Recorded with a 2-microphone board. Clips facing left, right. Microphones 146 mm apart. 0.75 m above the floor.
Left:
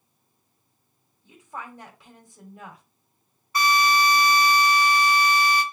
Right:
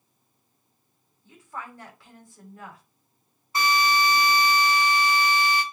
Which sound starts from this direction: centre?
A woman speaking, at 1.2 s.